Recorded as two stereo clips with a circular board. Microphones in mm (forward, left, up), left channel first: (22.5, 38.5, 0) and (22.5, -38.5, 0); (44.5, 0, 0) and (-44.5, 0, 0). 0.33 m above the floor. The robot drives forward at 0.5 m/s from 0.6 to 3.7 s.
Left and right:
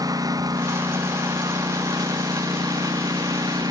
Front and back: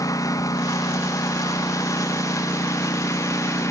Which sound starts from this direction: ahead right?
A lawn mower, at 0.0 s.